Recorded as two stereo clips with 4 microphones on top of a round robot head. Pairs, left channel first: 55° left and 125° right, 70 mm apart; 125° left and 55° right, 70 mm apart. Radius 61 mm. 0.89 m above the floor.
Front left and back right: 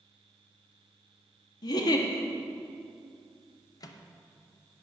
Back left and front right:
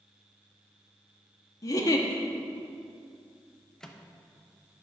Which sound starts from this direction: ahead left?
A microwave, at 3.8 s.